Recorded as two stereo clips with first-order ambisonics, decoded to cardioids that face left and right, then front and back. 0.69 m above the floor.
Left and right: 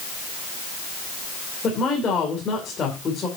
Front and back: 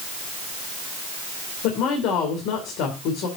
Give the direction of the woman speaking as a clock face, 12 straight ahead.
11 o'clock.